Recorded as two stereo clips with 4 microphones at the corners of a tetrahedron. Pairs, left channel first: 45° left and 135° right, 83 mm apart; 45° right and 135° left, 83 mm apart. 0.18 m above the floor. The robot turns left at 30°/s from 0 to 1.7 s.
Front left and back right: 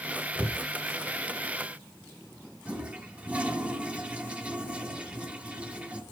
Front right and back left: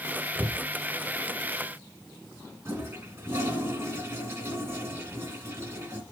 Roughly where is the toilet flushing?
Behind.